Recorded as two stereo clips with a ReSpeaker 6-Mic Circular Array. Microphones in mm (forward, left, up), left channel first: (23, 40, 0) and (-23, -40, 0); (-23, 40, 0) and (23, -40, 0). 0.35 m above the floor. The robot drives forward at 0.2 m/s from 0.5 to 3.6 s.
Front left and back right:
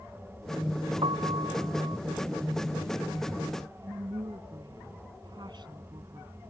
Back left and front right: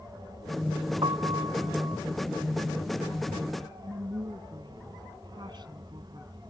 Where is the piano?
95° right.